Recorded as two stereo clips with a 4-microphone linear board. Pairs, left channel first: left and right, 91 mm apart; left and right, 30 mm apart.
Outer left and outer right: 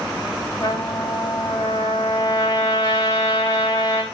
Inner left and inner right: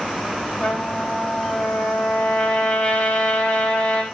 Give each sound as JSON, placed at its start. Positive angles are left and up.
{"t": 0.6, "sound": "a trumpet", "side_deg": 35, "distance_m": 4.5}